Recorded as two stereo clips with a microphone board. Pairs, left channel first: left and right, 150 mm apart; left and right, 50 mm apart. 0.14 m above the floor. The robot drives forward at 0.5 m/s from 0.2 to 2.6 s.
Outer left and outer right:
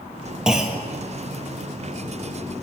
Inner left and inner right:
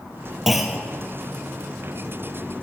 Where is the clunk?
5° right (ahead or behind), 1.3 m.